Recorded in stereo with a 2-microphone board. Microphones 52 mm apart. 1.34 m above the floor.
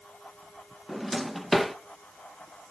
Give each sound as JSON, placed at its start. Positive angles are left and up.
{"t": 0.9, "sound": "a drawer", "side_deg": 0, "distance_m": 0.6}